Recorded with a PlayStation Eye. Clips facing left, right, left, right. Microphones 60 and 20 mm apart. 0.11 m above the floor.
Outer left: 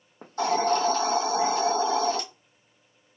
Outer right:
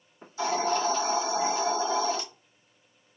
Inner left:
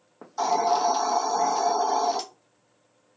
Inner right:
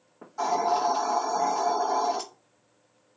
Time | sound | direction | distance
0.2 | a hiss | 55° left (ahead or behind) | 0.9 m